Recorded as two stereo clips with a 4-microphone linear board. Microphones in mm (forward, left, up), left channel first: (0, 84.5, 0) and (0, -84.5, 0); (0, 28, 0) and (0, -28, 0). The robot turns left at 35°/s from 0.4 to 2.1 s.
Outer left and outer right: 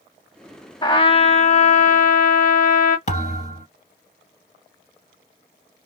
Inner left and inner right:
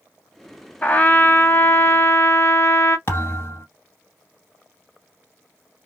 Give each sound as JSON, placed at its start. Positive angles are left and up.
{"t": 0.8, "sound": "a trumpet", "azimuth_deg": 145, "distance_m": 0.5}
{"t": 3.1, "sound": "a thud", "side_deg": 45, "distance_m": 1.9}